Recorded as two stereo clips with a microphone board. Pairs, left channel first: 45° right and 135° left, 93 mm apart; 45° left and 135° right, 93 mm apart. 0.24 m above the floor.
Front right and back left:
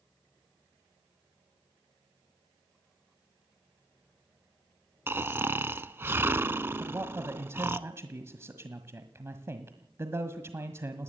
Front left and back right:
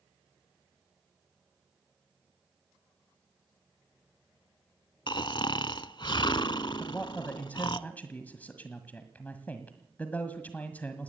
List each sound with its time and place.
5.1 s snoring: 70° left, 0.7 m
6.8 s a man speaking: 105° left, 1.6 m